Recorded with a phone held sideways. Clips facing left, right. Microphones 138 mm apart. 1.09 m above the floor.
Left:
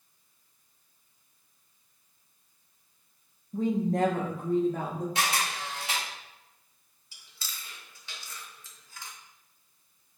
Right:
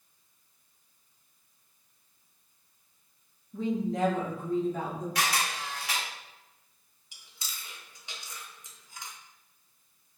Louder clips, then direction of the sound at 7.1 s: Even; 20° right (ahead or behind).